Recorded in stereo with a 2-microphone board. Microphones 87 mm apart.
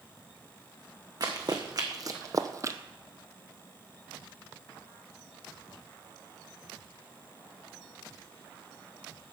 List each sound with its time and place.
1.2 s running footsteps: 50° right (ahead or behind), 1.6 m; by 2.8 s 35° right (ahead or behind), 0.6 m